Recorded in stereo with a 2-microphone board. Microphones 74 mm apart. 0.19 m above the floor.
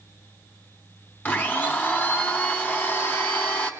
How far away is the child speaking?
No child speaking in this recording.